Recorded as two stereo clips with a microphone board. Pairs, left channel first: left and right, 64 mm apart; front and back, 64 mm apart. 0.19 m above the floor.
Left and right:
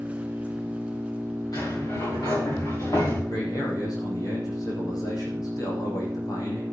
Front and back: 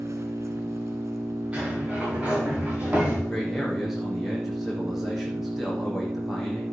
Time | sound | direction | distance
0.0 | an engine running | 160° right | 2.5 m
1.5 | a sliding door | 110° left | 7 m
3.3 | a man speaking | 90° left | 7 m